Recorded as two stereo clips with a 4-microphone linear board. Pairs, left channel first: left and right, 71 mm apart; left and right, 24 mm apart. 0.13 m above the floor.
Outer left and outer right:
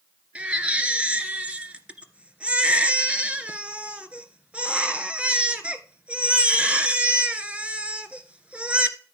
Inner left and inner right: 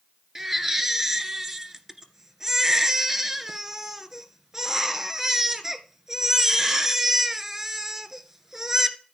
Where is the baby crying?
20° right (ahead or behind), 1.7 m.